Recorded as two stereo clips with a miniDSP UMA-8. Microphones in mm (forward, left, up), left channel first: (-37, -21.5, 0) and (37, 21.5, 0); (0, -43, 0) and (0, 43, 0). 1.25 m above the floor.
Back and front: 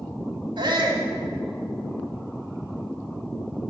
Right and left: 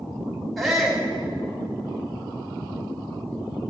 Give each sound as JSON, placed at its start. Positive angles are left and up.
{"t": 0.6, "sound": "a shout", "azimuth_deg": 0, "distance_m": 2.5}